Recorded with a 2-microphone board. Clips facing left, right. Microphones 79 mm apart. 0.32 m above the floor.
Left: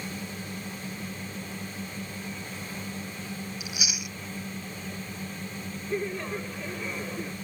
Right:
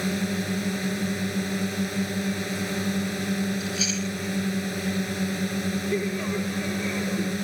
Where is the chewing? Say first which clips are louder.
Right 8 dB; 10° left (ahead or behind).